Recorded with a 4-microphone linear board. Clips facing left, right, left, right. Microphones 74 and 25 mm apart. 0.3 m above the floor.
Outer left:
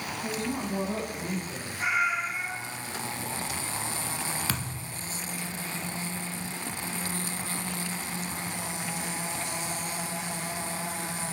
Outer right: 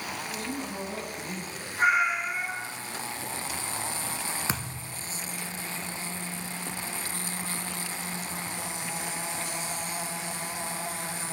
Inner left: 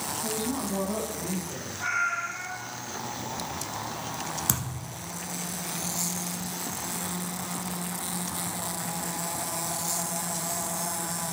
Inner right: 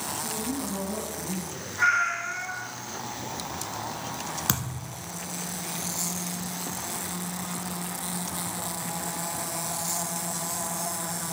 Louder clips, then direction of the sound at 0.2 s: Outer left 6 dB, inner left 3 dB; 45° left (ahead or behind).